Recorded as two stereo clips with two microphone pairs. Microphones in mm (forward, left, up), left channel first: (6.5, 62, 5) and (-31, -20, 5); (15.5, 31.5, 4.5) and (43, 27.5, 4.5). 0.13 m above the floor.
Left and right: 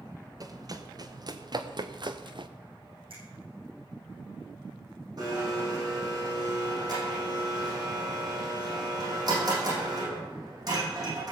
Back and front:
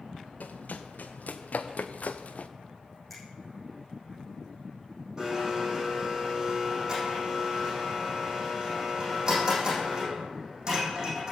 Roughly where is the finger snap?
Right.